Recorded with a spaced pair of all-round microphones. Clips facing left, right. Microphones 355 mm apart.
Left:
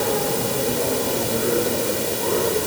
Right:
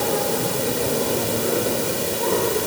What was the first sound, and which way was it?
Only background noise.